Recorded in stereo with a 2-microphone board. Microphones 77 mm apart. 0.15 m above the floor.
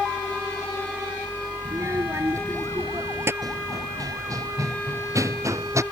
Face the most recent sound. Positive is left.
turn(degrees=-40)  # may be behind; listen again after turning